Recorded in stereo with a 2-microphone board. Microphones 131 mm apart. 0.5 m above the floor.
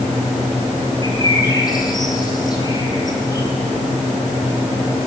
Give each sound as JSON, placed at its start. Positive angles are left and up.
{"t": 1.0, "sound": "a bird", "side_deg": 30, "distance_m": 5.0}